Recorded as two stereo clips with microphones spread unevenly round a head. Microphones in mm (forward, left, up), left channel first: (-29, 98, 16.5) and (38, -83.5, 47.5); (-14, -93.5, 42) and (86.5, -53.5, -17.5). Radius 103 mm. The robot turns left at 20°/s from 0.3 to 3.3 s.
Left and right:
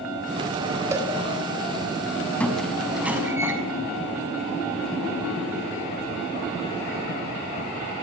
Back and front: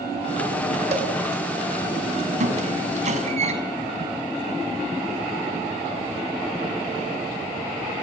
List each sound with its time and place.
0.9 s a cowbell: 5° left, 4.5 m
2.4 s a squeak: 25° left, 6 m; by 3.5 s 10° left, 6 m